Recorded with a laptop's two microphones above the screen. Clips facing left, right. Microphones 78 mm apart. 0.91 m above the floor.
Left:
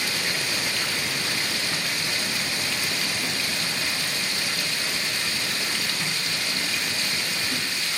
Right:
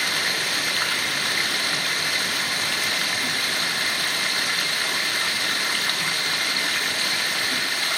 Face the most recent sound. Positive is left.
turn(degrees=-55)  # may be behind; listen again after turning